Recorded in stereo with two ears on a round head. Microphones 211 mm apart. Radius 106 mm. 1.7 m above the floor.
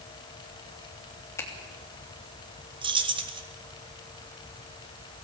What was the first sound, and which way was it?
A finger snap, 10° left (ahead or behind).